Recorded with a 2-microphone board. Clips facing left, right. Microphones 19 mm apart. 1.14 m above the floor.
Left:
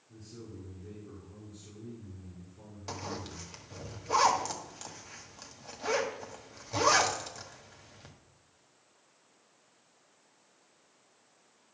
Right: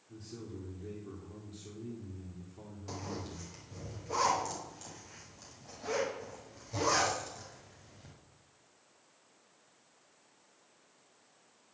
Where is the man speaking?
75° right (ahead or behind), 2.5 m.